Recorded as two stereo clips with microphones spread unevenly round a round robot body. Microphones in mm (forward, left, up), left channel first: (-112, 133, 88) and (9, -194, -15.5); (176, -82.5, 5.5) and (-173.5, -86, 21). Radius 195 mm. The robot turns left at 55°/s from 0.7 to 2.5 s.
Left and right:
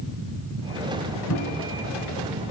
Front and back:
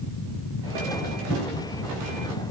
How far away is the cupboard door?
About 3.5 m.